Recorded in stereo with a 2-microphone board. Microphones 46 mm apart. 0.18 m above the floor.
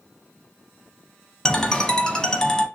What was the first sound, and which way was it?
A ringtone, 15° left (ahead or behind).